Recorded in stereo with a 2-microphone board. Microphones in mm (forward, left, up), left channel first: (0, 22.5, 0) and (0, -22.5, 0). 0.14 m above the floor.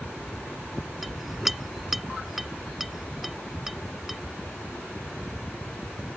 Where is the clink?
Centre (ahead or behind).